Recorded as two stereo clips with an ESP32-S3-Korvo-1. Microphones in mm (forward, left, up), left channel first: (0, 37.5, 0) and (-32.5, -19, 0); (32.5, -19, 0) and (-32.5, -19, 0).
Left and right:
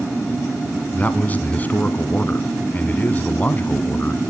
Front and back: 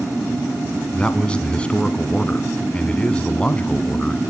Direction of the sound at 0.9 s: 50° left.